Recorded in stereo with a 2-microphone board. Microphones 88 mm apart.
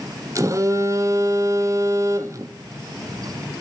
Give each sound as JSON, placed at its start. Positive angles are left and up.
{"t": 0.3, "sound": "a phone buzzing", "side_deg": -35, "distance_m": 0.5}